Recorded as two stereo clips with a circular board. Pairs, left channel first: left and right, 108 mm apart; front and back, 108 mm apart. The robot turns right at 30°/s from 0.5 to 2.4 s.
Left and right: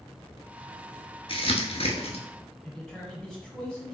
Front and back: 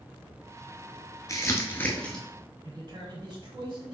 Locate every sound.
1.3 s crumpling: 55° left, 0.9 m; by 2.2 s 85° left, 0.9 m
2.6 s a man speaking: 170° left, 1.8 m